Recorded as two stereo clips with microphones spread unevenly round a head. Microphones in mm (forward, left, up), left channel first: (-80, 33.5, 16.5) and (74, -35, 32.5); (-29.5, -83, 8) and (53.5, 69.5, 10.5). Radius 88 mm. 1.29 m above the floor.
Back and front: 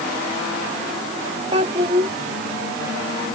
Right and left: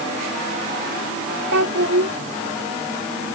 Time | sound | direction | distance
1.5 | a child speaking | 35° left | ?